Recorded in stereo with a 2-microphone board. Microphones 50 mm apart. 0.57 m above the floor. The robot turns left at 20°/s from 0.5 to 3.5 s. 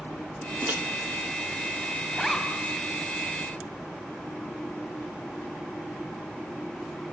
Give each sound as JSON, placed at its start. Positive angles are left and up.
{"t": 0.6, "sound": "a microwave", "side_deg": -45, "distance_m": 1.1}
{"t": 2.1, "sound": "a zipper", "side_deg": 5, "distance_m": 2.5}